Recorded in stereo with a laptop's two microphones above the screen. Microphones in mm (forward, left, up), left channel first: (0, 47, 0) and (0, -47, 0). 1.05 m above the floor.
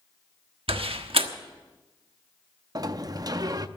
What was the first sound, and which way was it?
A door slam, 80° right.